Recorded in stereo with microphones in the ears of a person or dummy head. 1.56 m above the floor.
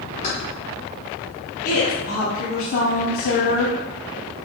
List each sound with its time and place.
0.2 s keys jangling: 30° left (ahead or behind), 0.8 m
1.6 s a woman speaking: 60° left (ahead or behind), 0.9 m